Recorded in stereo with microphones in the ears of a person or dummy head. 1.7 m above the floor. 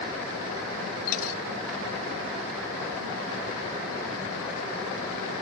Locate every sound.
1.1 s a dropped coin: 45° left (ahead or behind)